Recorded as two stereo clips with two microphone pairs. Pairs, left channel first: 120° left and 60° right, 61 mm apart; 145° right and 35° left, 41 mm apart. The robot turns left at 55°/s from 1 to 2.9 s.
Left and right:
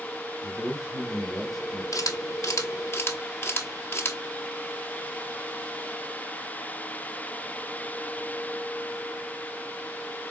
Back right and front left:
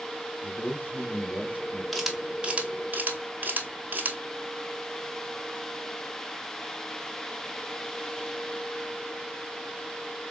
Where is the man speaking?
130° right, 1.7 m; by 1.8 s 175° right, 1.7 m.